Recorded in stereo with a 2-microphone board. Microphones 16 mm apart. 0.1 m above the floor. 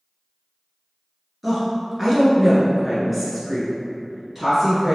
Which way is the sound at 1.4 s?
5° right (ahead or behind).